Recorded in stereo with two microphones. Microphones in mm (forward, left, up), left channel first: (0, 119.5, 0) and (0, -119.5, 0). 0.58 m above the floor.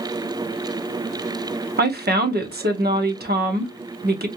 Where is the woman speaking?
40° right (ahead or behind), 1.1 m.